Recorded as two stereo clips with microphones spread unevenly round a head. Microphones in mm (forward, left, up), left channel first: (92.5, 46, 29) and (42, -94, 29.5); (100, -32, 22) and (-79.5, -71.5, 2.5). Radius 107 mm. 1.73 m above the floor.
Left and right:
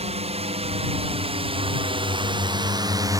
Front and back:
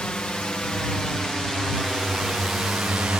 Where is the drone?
75° right; by 3.2 s 100° right.